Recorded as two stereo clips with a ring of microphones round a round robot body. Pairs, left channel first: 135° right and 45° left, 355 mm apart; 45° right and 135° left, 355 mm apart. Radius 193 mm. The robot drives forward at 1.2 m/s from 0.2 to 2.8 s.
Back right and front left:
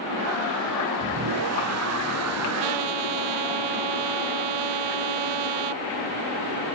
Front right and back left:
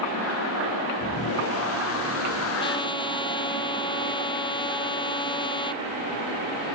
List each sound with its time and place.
2.6 s a trumpet: 30° left; by 5.8 s 35° left